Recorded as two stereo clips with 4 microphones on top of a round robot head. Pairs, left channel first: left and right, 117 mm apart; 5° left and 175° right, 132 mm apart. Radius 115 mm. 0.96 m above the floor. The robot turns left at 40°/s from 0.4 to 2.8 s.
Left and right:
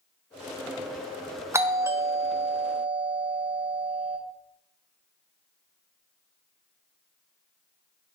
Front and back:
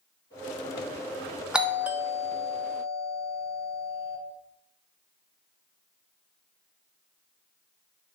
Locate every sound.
1.5 s a doorbell: 100° right, 0.6 m; by 4.2 s 150° right, 0.6 m